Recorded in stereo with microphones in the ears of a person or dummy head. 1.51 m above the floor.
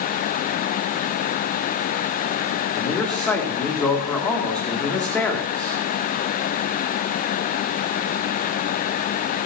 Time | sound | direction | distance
2.8 | a man speaking | 5° left (ahead or behind) | 1.9 m